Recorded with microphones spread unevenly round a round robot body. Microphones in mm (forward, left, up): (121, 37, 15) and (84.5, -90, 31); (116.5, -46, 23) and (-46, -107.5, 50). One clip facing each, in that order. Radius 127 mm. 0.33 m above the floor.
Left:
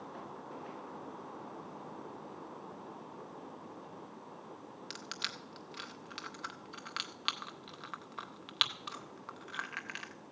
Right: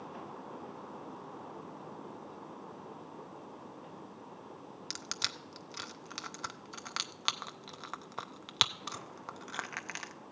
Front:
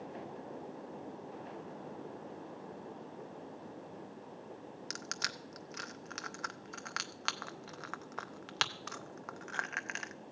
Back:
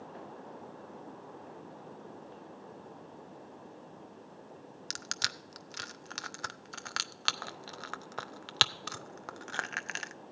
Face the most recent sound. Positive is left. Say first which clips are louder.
# right 1 dB, front 1 dB
turn(degrees=-115)